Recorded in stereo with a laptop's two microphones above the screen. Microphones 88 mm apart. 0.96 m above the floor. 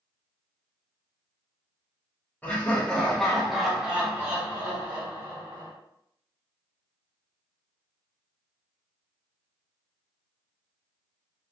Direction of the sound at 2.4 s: 20° left (ahead or behind).